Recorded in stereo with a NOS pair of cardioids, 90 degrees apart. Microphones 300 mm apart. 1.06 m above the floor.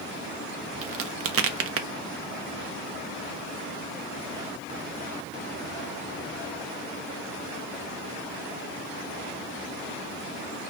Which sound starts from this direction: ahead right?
A crack, at 0.8 s.